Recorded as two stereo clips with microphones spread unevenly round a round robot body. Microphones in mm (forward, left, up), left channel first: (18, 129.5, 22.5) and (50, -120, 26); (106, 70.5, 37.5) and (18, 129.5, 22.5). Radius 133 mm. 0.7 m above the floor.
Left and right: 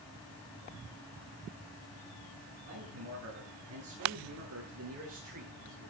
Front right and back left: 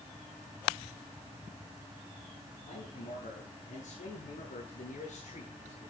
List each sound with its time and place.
2.7 s a man speaking: 45° right, 10 m